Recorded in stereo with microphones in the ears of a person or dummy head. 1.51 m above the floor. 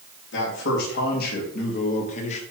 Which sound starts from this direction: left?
A man speaking, at 0.3 s.